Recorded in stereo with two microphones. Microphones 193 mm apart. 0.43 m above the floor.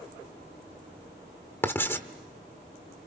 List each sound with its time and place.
1.6 s writing: 10° left (ahead or behind), 1.5 m